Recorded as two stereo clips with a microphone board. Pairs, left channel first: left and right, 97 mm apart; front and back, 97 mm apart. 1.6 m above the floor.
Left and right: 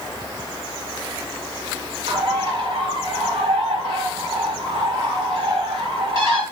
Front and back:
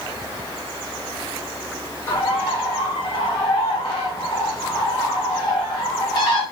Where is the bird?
50° right, 3 m.